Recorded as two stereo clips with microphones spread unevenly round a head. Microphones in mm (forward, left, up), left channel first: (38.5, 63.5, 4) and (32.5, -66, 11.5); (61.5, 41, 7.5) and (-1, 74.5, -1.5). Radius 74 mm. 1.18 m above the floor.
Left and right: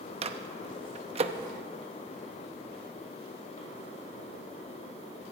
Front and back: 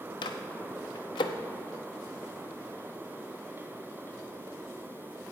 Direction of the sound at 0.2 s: 55° right.